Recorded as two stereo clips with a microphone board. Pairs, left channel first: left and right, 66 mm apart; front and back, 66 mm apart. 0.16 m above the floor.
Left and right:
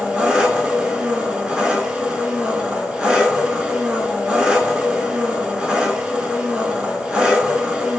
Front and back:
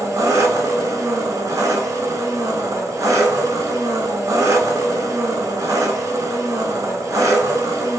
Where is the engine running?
160° right, 0.7 m.